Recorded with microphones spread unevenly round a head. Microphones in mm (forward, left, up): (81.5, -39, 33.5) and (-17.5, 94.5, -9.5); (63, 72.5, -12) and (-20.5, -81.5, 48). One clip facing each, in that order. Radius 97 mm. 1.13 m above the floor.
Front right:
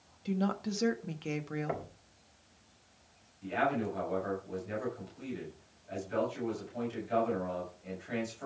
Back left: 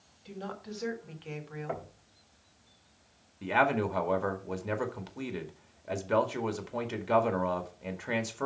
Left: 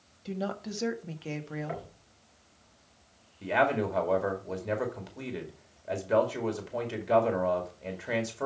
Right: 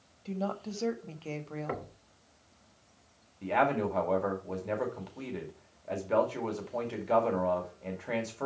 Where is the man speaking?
140° left, 2 m.